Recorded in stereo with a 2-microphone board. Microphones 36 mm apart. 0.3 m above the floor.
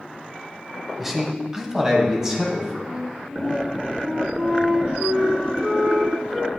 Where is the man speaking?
10° right (ahead or behind), 1.1 m; by 2.8 s 20° right (ahead or behind), 2.5 m.